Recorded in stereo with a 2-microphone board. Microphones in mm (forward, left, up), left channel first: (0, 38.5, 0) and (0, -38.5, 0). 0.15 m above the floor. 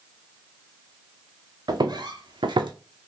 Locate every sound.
1.7 s footsteps: 60° right (ahead or behind), 0.9 m; by 2.7 s 80° right, 0.6 m